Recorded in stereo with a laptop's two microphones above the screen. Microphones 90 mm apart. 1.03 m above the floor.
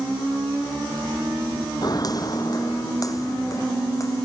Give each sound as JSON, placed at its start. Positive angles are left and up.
{"t": 1.8, "sound": "footsteps", "side_deg": 45}